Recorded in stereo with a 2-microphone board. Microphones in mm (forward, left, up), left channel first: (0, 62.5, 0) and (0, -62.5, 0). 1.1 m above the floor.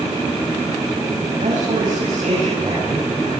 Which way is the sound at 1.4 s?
75° right (ahead or behind).